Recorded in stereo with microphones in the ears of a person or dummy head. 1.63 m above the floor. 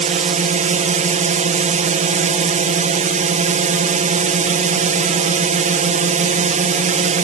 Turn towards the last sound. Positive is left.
turn(degrees=-30)  # may be behind; listen again after turning